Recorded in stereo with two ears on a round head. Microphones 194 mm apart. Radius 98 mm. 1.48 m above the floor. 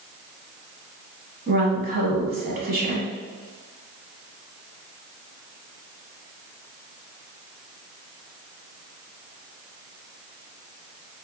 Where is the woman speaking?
45° right (ahead or behind), 1.3 m.